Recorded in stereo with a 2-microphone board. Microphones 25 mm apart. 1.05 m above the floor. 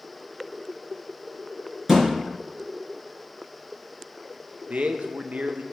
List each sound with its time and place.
1.9 s a thud: 5° right (ahead or behind), 3.5 m
4.7 s a man speaking: 70° right (ahead or behind), 0.7 m